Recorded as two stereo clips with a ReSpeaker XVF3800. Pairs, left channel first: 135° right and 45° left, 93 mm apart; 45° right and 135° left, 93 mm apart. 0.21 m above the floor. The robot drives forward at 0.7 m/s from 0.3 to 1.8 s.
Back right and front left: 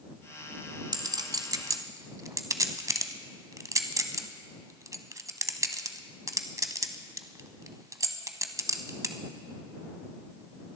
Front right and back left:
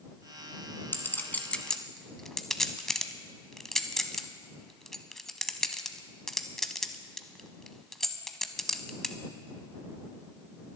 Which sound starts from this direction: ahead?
A clink, at 0.9 s.